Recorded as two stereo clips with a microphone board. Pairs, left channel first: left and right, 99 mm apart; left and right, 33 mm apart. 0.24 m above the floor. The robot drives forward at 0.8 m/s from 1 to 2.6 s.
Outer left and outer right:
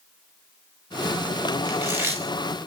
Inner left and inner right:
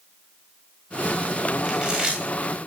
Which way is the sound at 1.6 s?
25° right (ahead or behind).